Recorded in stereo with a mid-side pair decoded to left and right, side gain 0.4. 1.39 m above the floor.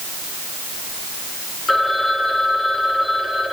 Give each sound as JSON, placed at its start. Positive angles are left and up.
{"t": 1.7, "sound": "a phone ringing", "azimuth_deg": 40, "distance_m": 4.0}